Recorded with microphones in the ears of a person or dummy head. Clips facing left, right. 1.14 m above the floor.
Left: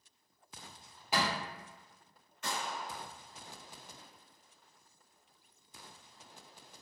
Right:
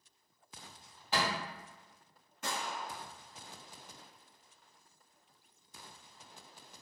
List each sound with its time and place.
1.1 s a thud: 10° left (ahead or behind), 1.2 m
2.4 s a gunshot: 40° right (ahead or behind), 1.4 m